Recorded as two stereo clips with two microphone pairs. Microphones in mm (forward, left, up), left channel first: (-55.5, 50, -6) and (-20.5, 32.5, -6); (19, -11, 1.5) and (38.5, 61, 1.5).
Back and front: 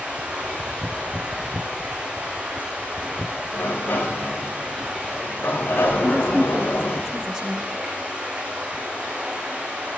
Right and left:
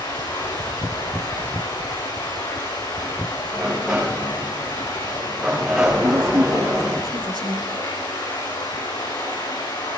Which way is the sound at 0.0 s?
85° right.